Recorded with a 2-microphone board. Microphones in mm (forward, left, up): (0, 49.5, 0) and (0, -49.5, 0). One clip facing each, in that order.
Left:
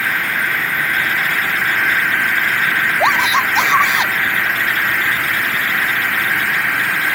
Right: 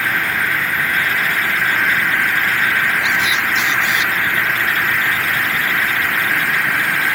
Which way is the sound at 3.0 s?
80° left.